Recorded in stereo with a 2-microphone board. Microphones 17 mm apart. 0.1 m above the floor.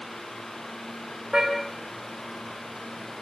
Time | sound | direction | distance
1.3 | a car horn | 50° right (ahead or behind) | 6.5 m